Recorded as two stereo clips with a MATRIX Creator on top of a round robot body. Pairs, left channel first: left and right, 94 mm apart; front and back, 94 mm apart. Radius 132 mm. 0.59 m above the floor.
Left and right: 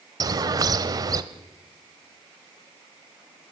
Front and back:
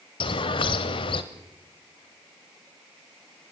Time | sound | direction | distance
0.2 | a bird | 40° right | 0.8 m